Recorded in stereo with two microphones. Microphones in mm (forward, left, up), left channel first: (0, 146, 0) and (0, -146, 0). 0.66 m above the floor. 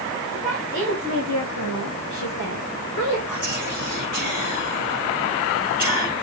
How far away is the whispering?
About 6.5 m.